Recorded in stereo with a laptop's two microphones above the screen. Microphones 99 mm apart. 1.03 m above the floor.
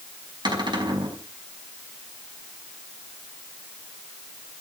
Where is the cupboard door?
45° right (ahead or behind), 5.5 m.